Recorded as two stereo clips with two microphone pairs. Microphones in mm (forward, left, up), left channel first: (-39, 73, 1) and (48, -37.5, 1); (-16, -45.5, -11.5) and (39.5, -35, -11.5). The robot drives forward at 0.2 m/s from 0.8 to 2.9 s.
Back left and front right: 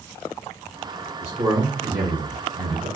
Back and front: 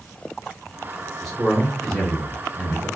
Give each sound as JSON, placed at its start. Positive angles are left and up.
{"t": 1.2, "sound": "a man speaking", "azimuth_deg": -100, "distance_m": 1.2}